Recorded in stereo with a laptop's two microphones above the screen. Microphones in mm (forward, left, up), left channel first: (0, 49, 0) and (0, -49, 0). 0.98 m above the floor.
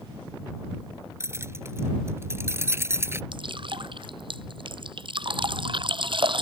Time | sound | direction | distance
1.2 | keys jangling | 25° right (ahead or behind) | ?
3.3 | dripping | 55° right (ahead or behind) | ?